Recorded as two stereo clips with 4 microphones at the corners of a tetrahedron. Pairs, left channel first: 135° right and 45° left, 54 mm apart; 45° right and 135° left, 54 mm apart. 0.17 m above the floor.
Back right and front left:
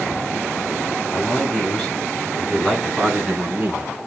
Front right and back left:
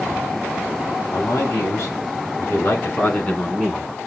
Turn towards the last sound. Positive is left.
turn(degrees=50)